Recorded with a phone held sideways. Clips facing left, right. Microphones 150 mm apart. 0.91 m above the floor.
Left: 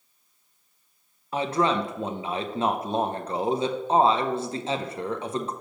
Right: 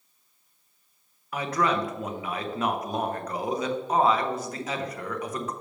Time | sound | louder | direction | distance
1.3 | a man speaking | left 2 dB | 25° left (ahead or behind) | 0.8 m